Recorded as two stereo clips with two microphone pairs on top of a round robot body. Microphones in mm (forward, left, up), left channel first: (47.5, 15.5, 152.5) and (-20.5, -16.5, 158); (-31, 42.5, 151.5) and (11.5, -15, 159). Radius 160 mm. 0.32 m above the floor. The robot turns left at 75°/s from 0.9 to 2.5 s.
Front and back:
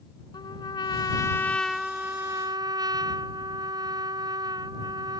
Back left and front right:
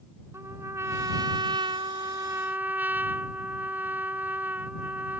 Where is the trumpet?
Straight ahead; by 5.2 s 120° right.